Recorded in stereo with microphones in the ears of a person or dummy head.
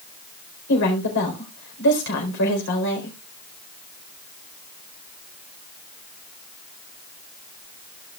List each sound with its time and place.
0.7 s a woman speaking: 65° left (ahead or behind), 4 m